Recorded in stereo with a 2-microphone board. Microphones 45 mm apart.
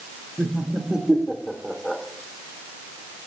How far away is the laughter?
About 1.6 m.